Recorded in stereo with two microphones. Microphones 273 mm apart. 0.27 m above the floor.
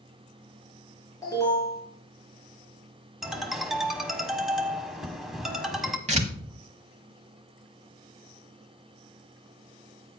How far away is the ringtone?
About 1.1 m.